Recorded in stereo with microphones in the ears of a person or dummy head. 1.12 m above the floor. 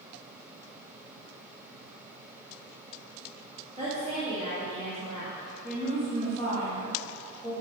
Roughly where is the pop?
I don't hear a pop.